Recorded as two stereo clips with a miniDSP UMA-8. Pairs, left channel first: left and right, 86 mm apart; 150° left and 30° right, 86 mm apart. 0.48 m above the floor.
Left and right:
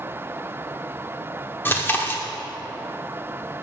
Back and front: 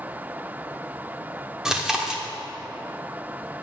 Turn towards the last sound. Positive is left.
turn(degrees=45)